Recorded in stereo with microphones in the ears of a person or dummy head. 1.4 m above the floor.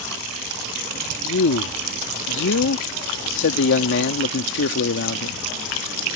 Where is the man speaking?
65° left (ahead or behind).